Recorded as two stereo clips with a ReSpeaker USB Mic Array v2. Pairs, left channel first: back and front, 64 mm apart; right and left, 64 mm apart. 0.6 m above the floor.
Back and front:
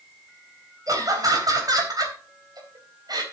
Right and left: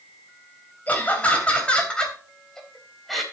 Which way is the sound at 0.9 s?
25° right.